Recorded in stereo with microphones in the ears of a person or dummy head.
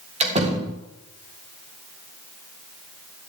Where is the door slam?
40° right (ahead or behind), 3 m.